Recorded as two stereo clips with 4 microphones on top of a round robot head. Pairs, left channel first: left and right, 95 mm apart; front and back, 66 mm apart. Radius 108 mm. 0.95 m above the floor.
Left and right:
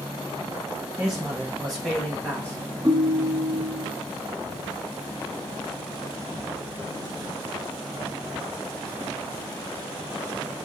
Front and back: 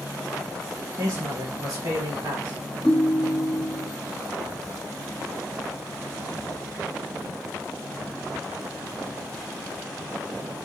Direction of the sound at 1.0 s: 170° right.